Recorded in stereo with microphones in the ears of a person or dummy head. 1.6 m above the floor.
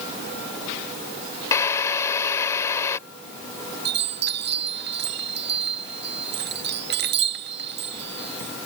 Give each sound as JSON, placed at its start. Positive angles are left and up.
{"t": 1.5, "sound": "a drill", "side_deg": 20}
{"t": 3.9, "sound": "a chime", "side_deg": -65}